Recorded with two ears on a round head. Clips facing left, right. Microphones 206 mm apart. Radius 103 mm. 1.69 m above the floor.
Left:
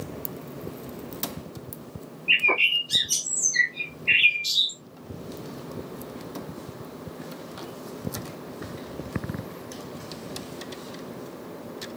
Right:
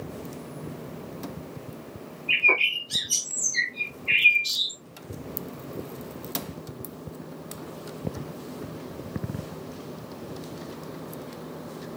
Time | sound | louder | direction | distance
2.3 | a bird | left 1 dB | 35° left (ahead or behind) | 1.3 m